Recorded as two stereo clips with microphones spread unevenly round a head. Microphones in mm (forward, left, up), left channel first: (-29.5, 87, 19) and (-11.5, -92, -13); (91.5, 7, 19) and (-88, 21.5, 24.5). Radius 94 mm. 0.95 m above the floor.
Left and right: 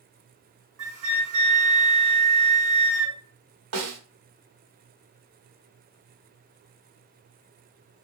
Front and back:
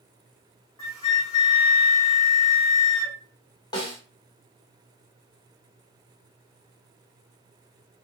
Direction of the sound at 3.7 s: 75° right.